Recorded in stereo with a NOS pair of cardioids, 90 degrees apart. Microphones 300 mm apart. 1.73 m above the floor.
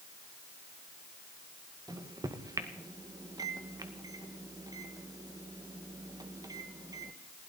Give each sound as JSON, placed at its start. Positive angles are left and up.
{"t": 1.9, "sound": "a microwave", "azimuth_deg": -10, "distance_m": 1.7}